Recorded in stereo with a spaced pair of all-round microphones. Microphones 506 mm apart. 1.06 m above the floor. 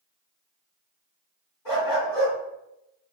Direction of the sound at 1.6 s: 50° left (ahead or behind).